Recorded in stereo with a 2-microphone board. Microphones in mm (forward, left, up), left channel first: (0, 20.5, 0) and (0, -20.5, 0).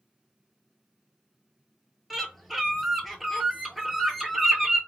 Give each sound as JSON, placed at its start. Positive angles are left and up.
{"t": 2.1, "sound": "a bird", "side_deg": -5, "distance_m": 0.5}